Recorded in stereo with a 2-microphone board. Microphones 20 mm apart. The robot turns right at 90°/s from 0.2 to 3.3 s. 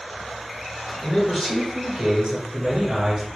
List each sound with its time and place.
1.0 s a man speaking: 135° left, 0.8 m; by 3.3 s 20° right, 0.8 m